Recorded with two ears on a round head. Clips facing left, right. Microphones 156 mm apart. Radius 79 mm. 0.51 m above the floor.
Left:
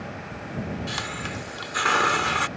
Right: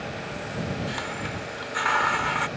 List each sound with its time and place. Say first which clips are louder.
0.9 s a hiss: right 1 dB; 50° left (ahead or behind)